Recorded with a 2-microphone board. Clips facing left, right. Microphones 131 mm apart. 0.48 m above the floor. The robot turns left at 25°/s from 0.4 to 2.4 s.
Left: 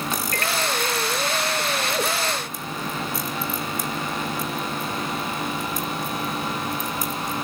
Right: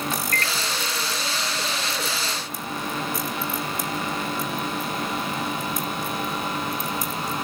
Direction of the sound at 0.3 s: 45° right (ahead or behind).